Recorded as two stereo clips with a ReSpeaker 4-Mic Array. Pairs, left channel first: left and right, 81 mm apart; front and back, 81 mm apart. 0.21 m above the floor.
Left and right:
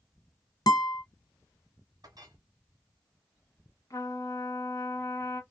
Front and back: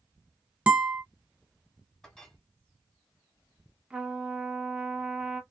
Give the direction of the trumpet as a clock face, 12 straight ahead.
8 o'clock.